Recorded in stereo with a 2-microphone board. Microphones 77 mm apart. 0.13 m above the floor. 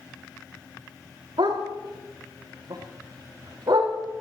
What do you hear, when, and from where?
1.4 s a dog barking: 70° right (ahead or behind), 8 m; by 3.9 s 60° right (ahead or behind), 7.5 m